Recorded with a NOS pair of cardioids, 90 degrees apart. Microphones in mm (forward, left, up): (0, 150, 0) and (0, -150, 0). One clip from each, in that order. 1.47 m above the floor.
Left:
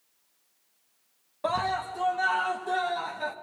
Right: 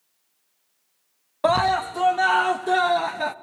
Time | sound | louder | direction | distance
1.4 | a scream | right 8 dB | 55° right | 1.0 m